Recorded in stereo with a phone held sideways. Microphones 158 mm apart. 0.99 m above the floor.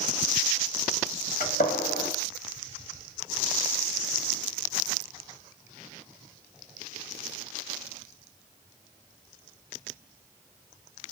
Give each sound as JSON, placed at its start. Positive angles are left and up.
{"t": 1.4, "sound": "a gunshot", "side_deg": 75, "distance_m": 1.0}